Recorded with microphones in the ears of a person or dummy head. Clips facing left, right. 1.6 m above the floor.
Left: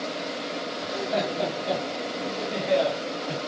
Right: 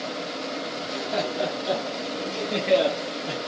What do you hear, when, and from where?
0.8 s laughter: 5° left (ahead or behind), 1.7 m; by 3.4 s 55° right (ahead or behind), 1.8 m